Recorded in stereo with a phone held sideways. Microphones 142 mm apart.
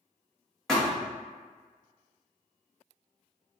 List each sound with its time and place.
0.7 s a thud: 5° left (ahead or behind), 1.5 m